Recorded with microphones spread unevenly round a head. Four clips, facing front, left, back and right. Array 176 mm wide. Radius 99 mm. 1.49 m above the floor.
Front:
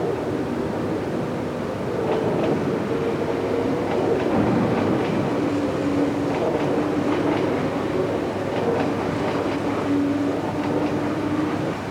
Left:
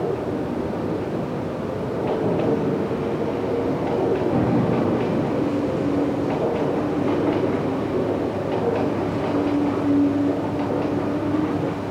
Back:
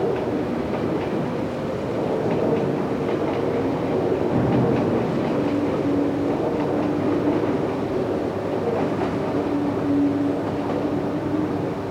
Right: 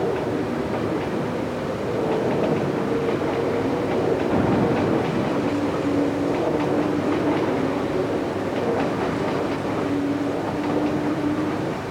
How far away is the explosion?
About 3.5 m.